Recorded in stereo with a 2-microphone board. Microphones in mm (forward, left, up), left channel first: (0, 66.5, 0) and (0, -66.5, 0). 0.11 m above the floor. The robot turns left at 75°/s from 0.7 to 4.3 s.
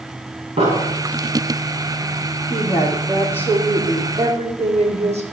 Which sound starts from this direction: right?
An explosion, at 0.6 s.